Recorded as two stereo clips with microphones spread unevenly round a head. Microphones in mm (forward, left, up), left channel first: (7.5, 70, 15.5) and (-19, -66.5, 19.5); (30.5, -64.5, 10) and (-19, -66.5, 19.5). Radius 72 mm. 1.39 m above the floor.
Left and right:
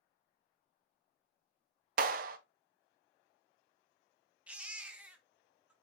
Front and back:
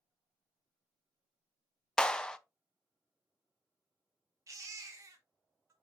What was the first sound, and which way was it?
A clap, 70° right.